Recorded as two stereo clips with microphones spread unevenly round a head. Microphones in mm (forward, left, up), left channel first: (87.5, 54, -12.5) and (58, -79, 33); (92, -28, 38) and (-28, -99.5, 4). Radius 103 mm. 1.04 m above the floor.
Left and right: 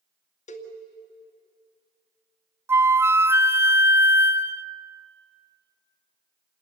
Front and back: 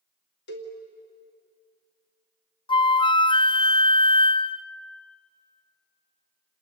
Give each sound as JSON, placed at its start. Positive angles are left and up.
{"t": 0.5, "sound": "a cowbell", "azimuth_deg": 50, "distance_m": 2.5}
{"t": 2.7, "sound": "a flute", "azimuth_deg": -30, "distance_m": 0.7}